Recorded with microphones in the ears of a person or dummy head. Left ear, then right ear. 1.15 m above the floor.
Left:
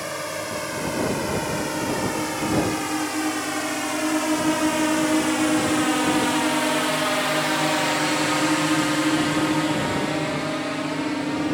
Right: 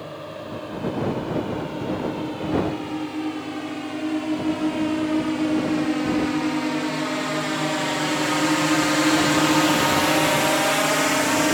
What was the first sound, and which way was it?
A drone, 65° left (ahead or behind).